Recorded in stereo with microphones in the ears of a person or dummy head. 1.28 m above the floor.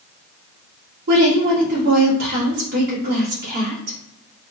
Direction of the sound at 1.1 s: 55° right (ahead or behind).